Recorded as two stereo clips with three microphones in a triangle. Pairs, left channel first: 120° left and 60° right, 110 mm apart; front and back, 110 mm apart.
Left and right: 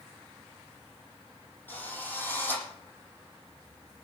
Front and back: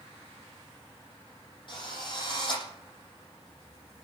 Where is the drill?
45° left, 10 m.